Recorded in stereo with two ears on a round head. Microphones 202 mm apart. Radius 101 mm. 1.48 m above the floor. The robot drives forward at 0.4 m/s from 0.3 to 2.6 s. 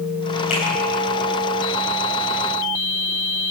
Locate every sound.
0.5 s a finger snap: 35° left (ahead or behind), 9.5 m